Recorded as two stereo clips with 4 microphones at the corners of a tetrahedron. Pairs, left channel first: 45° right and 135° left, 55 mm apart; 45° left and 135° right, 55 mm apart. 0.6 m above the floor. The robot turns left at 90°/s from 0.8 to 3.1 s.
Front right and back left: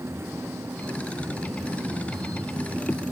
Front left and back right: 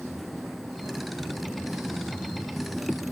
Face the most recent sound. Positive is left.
No sound to turn to.